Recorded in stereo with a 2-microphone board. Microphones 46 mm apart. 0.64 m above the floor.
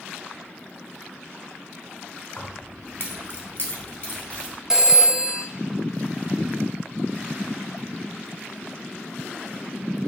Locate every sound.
2.4 s keys jangling: 30° left (ahead or behind), 0.8 m; by 4.5 s 40° left (ahead or behind), 1.4 m
4.7 s a phone ringing: 10° right (ahead or behind), 0.7 m